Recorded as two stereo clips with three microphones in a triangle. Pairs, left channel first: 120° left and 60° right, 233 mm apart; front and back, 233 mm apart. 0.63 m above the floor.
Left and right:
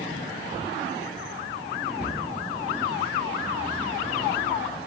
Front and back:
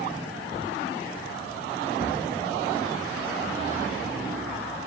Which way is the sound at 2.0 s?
50° left.